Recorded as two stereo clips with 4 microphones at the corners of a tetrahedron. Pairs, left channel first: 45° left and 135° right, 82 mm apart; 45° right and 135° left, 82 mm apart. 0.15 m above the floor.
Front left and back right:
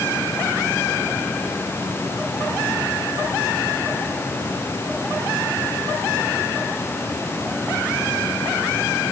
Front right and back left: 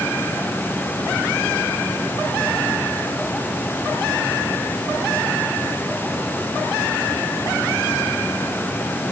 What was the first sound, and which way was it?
Only background noise.